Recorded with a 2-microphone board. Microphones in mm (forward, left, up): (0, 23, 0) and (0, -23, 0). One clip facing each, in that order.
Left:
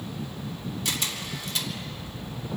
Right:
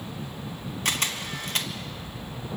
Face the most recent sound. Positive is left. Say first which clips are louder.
# right 4 dB
turn(degrees=-50)  # may be behind; listen again after turning